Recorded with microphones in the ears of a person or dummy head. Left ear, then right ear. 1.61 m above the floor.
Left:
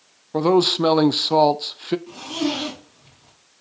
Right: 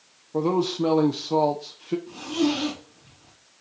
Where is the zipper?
35° left (ahead or behind), 4.5 m.